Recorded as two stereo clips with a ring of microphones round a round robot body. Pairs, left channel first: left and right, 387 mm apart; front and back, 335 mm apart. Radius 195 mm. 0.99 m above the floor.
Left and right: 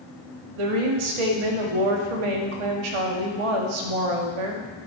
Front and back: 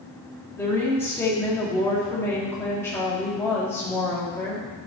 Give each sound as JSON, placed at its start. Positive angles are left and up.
{"t": 0.6, "sound": "a woman speaking", "azimuth_deg": -85, "distance_m": 1.7}